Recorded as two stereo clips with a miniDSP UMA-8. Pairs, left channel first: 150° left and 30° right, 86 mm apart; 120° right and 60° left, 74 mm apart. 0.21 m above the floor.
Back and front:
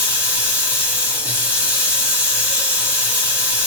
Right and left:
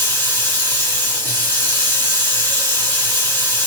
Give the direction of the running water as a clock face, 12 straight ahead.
3 o'clock.